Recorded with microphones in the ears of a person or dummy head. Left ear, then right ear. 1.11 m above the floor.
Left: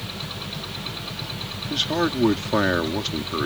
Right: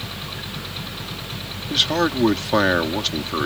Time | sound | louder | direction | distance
1.7 | a man speaking | right 4 dB | 15° right (ahead or behind) | ?